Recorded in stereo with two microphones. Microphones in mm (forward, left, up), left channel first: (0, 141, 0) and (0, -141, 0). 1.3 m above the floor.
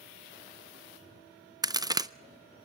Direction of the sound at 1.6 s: 15° right (ahead or behind).